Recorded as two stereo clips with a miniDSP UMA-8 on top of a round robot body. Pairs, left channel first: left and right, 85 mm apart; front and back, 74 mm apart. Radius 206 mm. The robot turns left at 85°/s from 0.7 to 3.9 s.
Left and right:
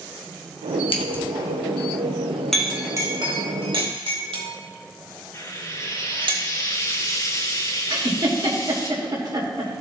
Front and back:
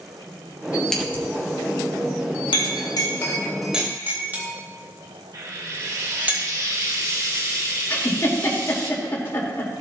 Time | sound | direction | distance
0.9 | scissors | 85° left | 1.7 m
2.5 | a clink | 5° left | 1.9 m
5.3 | frying | 145° left | 1.9 m
7.9 | a giggle | 55° right | 2.5 m